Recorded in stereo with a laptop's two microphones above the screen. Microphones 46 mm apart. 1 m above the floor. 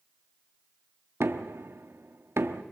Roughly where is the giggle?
I don't hear a giggle.